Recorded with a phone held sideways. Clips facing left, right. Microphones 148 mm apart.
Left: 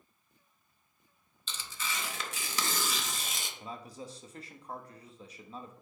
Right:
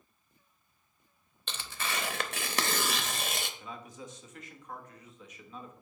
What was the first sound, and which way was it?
Tearing paper, 60° right (ahead or behind).